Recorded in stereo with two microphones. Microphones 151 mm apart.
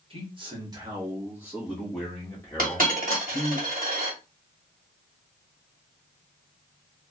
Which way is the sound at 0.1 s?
35° right (ahead or behind).